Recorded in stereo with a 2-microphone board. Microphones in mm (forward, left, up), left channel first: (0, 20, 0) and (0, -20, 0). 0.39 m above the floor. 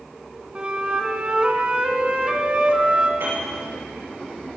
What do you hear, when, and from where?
0.6 s a flute: 25° right (ahead or behind), 1.5 m
3.2 s a piano: 70° right (ahead or behind), 8.5 m